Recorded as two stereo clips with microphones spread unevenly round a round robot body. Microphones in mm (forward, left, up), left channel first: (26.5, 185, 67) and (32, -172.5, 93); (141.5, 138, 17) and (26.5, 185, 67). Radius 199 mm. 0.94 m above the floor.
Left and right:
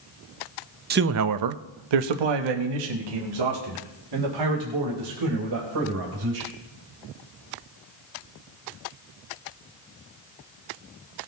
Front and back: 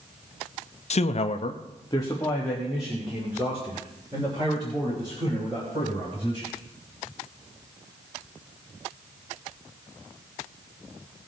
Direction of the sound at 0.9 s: 25° right.